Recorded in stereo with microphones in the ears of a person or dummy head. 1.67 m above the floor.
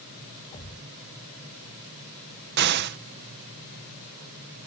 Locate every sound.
0.5 s a thud: 40° left (ahead or behind)
2.6 s an explosion: 55° right (ahead or behind)